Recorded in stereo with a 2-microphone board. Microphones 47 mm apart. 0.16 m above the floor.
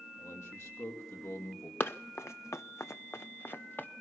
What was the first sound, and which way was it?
A man speaking, 75° left (ahead or behind).